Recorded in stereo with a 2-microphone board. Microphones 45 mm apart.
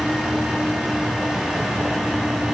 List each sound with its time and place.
Only background noise.